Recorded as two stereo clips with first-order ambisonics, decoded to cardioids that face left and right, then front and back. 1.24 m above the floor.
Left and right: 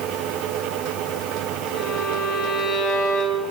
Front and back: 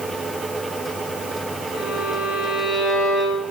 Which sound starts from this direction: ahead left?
A violin, at 1.7 s.